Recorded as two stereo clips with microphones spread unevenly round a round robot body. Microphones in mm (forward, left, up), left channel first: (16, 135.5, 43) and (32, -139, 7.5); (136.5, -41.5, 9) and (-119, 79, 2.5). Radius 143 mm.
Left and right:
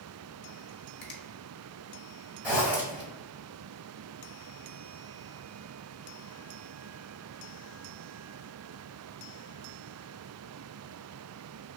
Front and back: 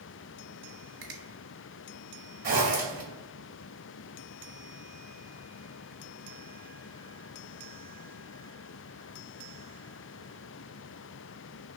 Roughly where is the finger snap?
Behind left.